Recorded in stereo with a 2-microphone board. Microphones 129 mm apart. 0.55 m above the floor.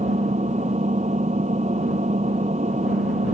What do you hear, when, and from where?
0.0 s an engine running: 65° right (ahead or behind)